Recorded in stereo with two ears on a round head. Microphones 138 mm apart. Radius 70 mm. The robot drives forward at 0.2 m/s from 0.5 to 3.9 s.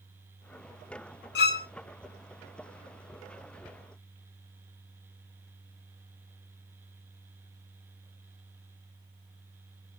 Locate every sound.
1.4 s a violin: 75° left (ahead or behind), 0.6 m; by 1.7 s 70° left (ahead or behind), 0.7 m